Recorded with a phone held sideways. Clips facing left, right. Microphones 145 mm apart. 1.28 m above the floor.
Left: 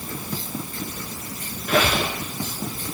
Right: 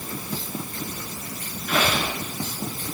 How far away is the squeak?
About 2.5 m.